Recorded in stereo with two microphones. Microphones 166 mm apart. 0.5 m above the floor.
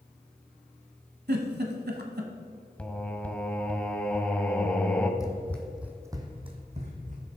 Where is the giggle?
80° right, 1.2 m.